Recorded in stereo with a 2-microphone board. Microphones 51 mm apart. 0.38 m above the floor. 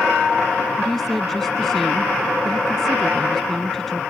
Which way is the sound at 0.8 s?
5° left (ahead or behind).